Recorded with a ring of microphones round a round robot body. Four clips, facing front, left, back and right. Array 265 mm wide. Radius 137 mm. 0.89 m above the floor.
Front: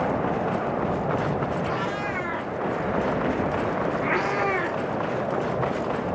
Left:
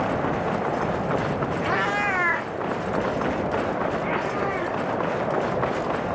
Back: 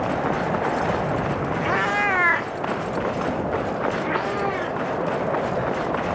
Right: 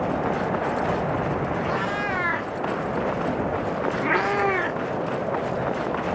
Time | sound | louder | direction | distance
1.6 | a cat meowing | left 2 dB, back 5 dB | 150° left | 0.9 m